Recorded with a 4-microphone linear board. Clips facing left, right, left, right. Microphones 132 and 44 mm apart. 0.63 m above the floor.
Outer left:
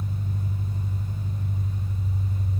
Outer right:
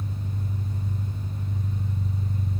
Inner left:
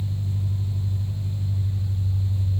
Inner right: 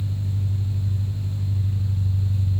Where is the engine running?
70° right (ahead or behind), 2 m.